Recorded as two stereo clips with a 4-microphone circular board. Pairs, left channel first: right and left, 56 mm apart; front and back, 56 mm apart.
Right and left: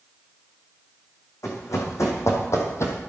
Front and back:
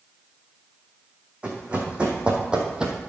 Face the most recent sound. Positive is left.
turn(degrees=-105)